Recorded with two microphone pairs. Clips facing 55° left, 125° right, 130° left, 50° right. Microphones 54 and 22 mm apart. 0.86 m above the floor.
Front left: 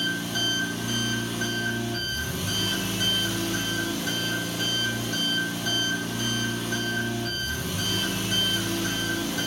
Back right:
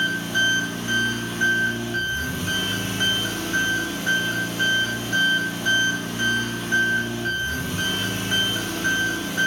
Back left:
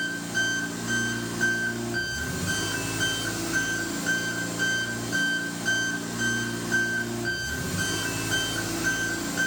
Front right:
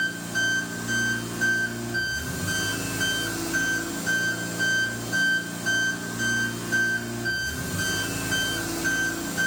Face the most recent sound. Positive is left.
turn(degrees=-160)